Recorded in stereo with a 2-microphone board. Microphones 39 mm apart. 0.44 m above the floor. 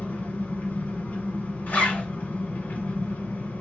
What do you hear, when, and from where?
0.0 s an engine running: 50° left (ahead or behind), 1.2 m
1.7 s a zipper: 50° left (ahead or behind), 2 m